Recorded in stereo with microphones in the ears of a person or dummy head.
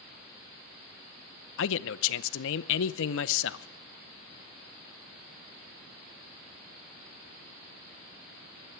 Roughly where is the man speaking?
Left.